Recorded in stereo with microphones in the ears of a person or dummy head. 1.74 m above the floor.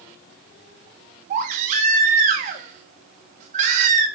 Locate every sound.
1.3 s a baby crying: 45° right (ahead or behind), 1.4 m